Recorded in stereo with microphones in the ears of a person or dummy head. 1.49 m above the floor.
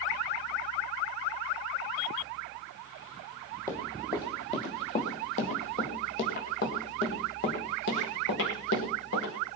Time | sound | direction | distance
3.7 | running footsteps | 15° left (ahead or behind) | 2.5 m